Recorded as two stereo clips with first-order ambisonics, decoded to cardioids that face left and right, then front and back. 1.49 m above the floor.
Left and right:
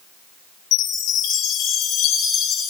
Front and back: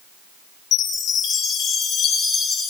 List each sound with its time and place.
0.7 s a chime: 45° left, 3.5 m